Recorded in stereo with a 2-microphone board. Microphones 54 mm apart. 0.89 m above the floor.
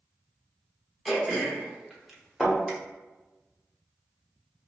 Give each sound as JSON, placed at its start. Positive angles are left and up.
{"t": 1.1, "sound": "throat clearing", "side_deg": 0, "distance_m": 0.7}
{"t": 2.4, "sound": "a thud", "side_deg": 10, "distance_m": 1.0}